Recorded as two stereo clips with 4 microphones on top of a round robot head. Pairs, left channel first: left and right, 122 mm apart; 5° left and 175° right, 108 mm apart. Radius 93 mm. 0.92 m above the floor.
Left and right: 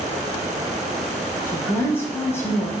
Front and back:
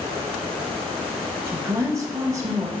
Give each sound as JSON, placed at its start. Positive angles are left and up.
{"t": 1.5, "sound": "a woman speaking", "azimuth_deg": 145, "distance_m": 1.0}